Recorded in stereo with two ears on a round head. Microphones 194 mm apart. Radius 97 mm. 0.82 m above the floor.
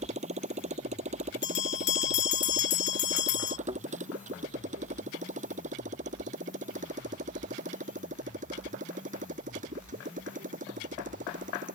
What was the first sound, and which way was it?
A motorcycle, 30° right (ahead or behind).